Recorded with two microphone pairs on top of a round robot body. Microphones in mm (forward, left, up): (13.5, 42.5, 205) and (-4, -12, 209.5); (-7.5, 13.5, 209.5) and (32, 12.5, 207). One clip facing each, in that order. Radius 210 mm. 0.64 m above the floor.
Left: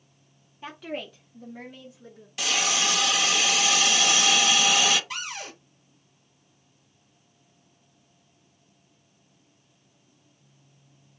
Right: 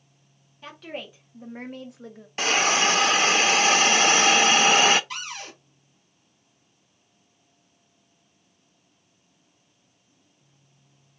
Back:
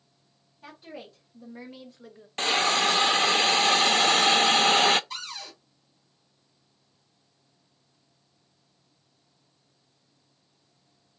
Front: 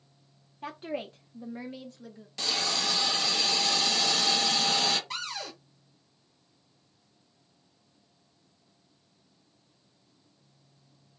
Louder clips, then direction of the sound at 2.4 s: Right 5 dB, back 7 dB; 150° right.